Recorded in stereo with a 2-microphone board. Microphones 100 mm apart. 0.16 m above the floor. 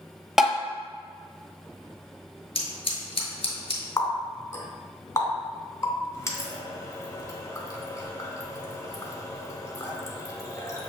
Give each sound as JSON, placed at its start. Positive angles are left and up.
{"t": 0.4, "sound": "tapping", "side_deg": -5, "distance_m": 0.6}
{"t": 2.5, "sound": "scissors", "side_deg": 70, "distance_m": 1.2}
{"t": 4.0, "sound": "a running tap", "side_deg": 30, "distance_m": 0.9}